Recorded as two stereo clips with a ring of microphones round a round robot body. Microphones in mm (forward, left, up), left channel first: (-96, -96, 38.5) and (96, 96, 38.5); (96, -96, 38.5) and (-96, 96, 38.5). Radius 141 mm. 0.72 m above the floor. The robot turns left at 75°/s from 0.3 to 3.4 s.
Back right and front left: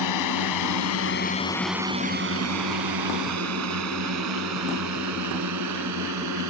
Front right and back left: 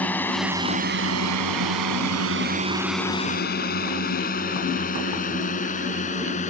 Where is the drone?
130° right; by 6.5 s 20° left.